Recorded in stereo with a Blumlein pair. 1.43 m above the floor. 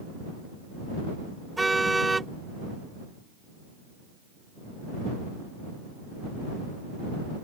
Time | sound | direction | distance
1.6 | a car horn | 5° right | ?